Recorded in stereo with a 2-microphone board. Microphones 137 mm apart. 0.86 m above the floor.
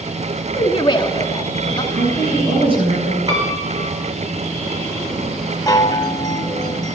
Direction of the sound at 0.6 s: 35° left (ahead or behind).